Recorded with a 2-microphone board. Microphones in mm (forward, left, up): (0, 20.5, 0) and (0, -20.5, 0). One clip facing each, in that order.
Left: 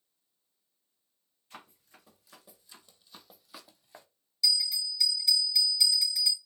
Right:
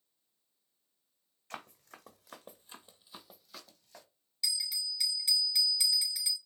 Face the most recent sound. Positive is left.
turn(degrees=-10)  # may be behind; listen again after turning